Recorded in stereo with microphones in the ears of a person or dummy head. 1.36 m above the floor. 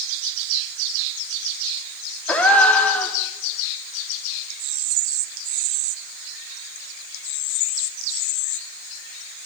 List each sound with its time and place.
2.3 s a gasp: centre (ahead or behind), 1.4 m